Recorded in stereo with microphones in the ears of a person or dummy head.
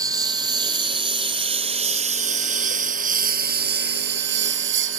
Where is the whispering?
I don't hear whispering.